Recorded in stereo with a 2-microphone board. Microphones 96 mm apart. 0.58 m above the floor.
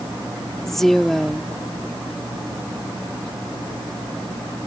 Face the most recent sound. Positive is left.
turn(degrees=5)  # may be behind; listen again after turning